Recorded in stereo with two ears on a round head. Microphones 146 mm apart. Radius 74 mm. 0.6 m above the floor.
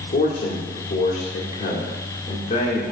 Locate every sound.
0.1 s a man speaking: 40° left (ahead or behind), 1.8 m